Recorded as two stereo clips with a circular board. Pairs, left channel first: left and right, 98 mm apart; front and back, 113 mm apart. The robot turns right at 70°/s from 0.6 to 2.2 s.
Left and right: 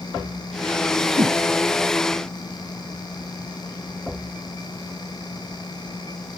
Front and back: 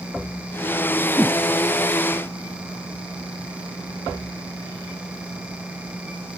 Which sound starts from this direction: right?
A whoosh, at 1.2 s.